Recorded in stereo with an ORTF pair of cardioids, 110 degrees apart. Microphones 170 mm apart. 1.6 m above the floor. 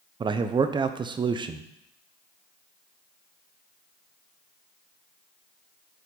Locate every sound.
0.2 s a man speaking: 30° right, 0.6 m